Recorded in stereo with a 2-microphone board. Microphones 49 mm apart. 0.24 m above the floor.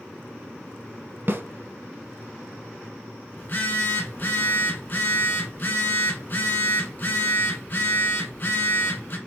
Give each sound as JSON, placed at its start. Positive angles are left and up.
{"t": 1.3, "sound": "a snare drum", "side_deg": -45, "distance_m": 0.7}
{"t": 3.4, "sound": "a phone buzzing", "side_deg": 40, "distance_m": 1.3}